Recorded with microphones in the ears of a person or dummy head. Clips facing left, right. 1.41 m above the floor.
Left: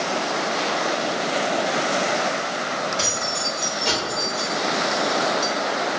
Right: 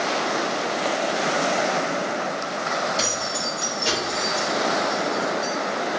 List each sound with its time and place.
3.0 s keys jangling: 35° right (ahead or behind), 1.7 m; by 5.5 s 40° left (ahead or behind), 0.7 m